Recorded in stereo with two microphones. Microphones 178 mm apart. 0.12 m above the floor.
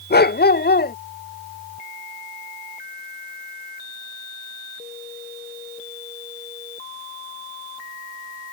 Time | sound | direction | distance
0.1 | a dog barking | 60° left (ahead or behind) | ?